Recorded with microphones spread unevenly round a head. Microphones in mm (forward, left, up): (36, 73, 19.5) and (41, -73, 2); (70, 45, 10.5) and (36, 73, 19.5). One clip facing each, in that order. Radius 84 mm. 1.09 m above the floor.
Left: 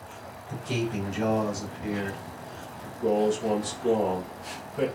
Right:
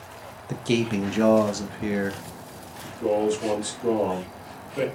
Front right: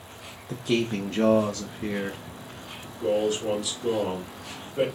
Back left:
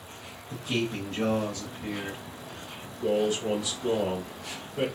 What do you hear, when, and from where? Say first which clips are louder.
0.5 s a man speaking: right 6 dB, front right 4 dB; 75° right, 0.9 m
2.8 s a man speaking: right 1 dB, front right 1 dB; 115° right, 2 m